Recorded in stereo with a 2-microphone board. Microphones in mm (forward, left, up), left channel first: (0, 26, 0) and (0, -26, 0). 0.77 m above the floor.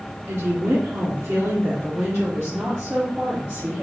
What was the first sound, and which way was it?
A woman speaking, 60° right (ahead or behind).